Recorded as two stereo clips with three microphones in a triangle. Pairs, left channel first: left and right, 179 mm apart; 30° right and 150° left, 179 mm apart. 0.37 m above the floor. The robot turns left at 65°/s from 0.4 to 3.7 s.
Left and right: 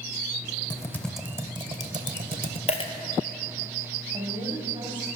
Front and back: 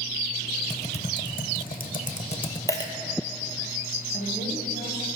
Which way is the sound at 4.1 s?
30° right.